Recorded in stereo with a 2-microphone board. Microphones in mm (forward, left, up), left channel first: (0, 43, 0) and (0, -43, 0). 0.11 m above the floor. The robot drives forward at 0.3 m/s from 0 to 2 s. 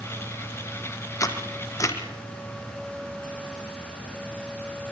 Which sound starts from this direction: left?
A camera shutter, at 1.2 s.